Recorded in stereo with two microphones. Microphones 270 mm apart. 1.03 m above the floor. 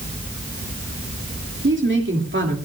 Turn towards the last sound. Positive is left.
turn(degrees=-45)  # may be behind; listen again after turning